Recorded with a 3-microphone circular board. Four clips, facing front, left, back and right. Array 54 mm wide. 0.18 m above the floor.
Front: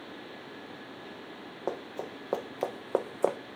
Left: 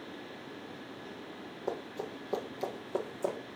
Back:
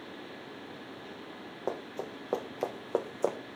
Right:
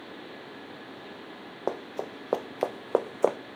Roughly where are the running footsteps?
Right.